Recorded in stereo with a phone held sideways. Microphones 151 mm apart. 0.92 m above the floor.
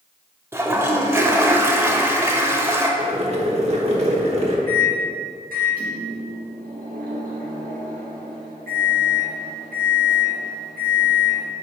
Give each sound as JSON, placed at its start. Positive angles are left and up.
{"t": 0.5, "sound": "a toilet flushing", "side_deg": -15, "distance_m": 0.7}
{"t": 3.0, "sound": "boiling", "side_deg": -45, "distance_m": 1.1}
{"t": 4.7, "sound": "a microwave", "side_deg": -70, "distance_m": 1.5}